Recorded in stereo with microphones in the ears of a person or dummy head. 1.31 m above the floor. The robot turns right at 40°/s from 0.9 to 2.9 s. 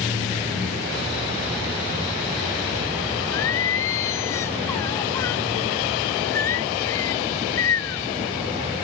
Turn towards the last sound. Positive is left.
turn(degrees=20)  # may be behind; listen again after turning